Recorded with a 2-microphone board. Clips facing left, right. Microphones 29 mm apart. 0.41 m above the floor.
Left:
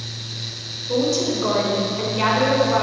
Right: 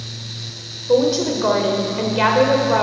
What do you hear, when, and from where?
0.9 s a woman speaking: 45° right (ahead or behind), 1.2 m